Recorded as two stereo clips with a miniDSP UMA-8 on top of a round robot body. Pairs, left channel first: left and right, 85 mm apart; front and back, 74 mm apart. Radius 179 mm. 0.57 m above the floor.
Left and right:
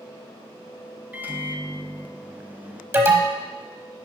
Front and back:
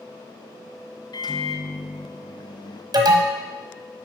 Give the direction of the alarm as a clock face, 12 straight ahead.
5 o'clock.